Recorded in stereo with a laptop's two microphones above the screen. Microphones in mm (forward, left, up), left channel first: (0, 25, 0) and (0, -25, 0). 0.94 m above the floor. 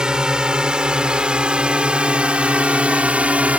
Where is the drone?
15° right (ahead or behind); by 3.6 s 25° right (ahead or behind).